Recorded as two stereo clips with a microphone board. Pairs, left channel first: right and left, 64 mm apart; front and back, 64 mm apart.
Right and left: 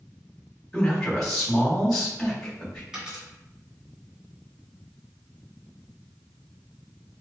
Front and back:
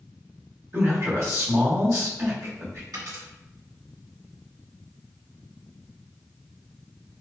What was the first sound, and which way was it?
A man speaking, 175° right.